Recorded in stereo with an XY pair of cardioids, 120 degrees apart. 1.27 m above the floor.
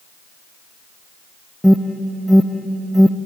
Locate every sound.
1.6 s an alarm: straight ahead, 0.6 m